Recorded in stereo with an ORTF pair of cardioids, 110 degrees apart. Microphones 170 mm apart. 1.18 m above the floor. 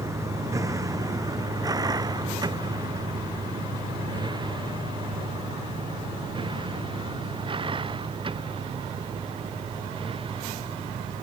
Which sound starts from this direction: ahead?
A vehicle, at 0.0 s.